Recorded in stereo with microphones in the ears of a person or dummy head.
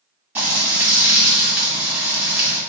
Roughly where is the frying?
Centre.